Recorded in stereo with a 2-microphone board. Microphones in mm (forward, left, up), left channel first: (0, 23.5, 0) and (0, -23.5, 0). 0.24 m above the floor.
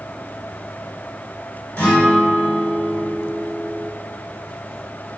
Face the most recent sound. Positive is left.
turn(degrees=40)  # may be behind; listen again after turning